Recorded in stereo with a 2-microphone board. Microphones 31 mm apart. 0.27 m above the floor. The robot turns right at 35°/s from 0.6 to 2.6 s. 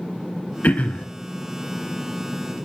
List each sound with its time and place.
0.6 s throat clearing: 75° left (ahead or behind), 0.9 m